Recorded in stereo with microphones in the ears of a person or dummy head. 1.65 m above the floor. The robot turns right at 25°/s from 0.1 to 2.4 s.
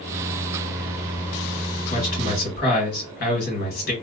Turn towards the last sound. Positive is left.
turn(degrees=45)  # may be behind; listen again after turning